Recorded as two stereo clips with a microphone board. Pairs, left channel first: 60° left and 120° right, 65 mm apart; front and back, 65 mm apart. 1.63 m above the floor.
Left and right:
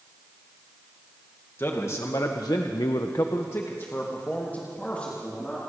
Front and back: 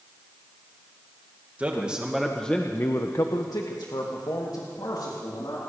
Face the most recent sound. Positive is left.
turn(degrees=-15)